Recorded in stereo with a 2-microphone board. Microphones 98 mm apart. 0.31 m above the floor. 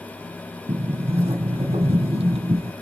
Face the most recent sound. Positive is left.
turn(degrees=-80)